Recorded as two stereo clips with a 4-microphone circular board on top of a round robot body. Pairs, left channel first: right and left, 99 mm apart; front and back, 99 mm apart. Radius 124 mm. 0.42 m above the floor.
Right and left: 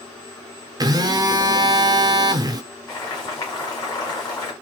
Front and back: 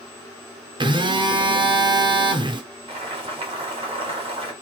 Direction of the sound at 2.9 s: 145° right.